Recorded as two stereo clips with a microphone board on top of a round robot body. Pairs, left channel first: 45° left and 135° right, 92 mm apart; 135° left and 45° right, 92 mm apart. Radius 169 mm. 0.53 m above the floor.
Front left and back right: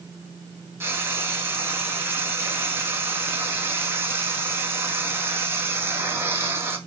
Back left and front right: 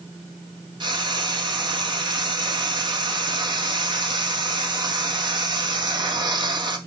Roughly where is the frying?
Right.